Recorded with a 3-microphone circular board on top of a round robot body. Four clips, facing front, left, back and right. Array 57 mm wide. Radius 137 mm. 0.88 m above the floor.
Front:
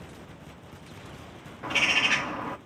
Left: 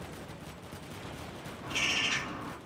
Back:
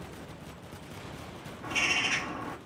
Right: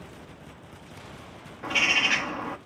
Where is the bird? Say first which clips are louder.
Right 8 dB, front 5 dB; 40° right, 1.4 m.